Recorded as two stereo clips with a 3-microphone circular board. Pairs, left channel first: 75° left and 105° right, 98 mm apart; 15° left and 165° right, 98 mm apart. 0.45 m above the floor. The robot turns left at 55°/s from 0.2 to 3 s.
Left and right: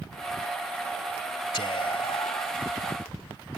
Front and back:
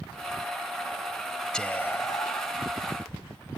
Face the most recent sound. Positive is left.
turn(degrees=15)